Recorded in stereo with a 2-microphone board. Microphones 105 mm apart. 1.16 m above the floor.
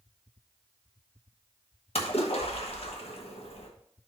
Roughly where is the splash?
Left.